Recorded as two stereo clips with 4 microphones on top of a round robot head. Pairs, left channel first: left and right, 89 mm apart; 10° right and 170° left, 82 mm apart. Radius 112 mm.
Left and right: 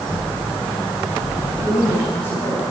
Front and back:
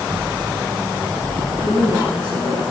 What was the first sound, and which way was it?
A woman speaking, 45° left.